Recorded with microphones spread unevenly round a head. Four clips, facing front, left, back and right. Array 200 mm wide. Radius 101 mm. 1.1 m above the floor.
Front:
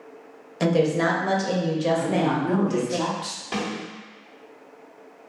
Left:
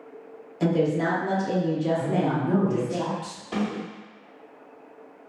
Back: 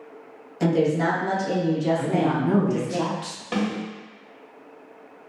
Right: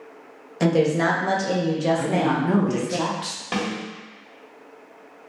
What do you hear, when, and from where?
0.6 s a woman speaking: 60° right, 1.2 m
2.0 s a woman speaking: 90° right, 1.0 m
3.5 s a snare drum: 95° right, 1.9 m